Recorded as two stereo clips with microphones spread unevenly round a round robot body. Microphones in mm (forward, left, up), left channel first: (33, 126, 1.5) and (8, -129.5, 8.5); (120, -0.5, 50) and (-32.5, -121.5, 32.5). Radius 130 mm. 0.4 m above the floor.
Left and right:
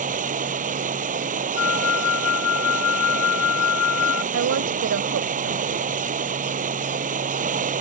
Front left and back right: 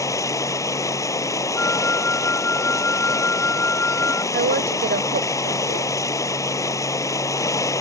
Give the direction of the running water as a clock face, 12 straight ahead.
1 o'clock.